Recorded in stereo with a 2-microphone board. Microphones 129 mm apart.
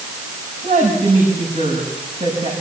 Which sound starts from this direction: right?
A woman speaking, at 0.6 s.